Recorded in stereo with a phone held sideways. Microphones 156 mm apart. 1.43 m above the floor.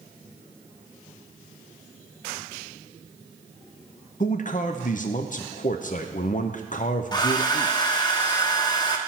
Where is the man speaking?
55° left (ahead or behind), 0.7 m.